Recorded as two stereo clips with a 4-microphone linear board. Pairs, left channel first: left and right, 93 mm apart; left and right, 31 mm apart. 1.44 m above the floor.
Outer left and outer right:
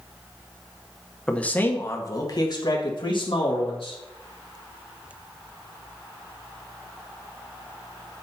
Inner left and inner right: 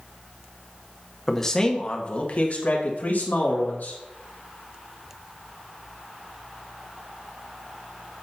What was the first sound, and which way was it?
A man speaking, 10° left (ahead or behind).